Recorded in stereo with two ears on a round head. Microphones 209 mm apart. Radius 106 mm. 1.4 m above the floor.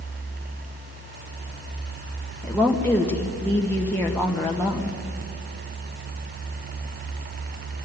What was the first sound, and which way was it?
A woman speaking, 5° left (ahead or behind).